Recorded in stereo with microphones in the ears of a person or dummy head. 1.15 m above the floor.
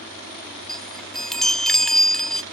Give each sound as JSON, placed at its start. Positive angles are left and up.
{"t": 0.7, "sound": "a chime", "side_deg": 5}